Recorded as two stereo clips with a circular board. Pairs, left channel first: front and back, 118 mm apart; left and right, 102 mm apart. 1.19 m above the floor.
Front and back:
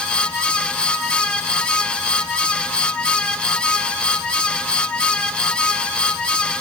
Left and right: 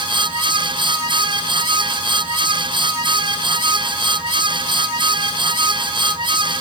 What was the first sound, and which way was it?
Only background noise.